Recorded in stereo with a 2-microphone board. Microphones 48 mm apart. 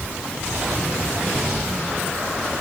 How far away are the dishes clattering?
I don't hear dishes clattering.